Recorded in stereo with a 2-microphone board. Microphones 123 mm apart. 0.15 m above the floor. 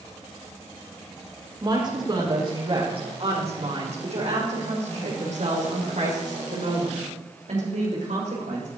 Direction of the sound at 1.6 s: 35° right (ahead or behind).